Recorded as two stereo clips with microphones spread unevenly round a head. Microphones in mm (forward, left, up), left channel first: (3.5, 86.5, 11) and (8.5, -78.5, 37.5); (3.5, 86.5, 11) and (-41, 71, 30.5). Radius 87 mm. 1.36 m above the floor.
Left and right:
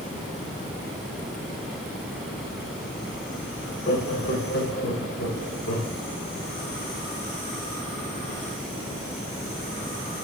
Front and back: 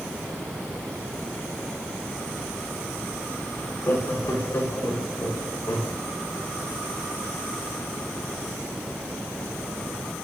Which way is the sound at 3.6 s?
65° left.